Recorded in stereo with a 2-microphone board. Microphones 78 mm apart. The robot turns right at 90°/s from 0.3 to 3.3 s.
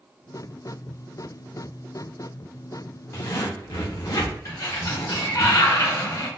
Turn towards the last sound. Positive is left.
turn(degrees=50)  # may be behind; listen again after turning